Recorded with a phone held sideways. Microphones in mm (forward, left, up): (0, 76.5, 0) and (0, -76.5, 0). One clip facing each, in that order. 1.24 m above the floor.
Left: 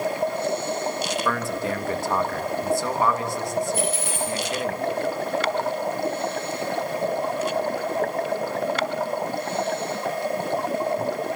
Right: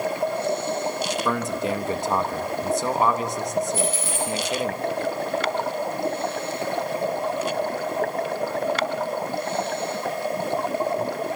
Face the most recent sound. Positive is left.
turn(degrees=65)  # may be behind; listen again after turning